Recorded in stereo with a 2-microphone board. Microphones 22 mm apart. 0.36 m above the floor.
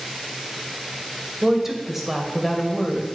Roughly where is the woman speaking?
Centre.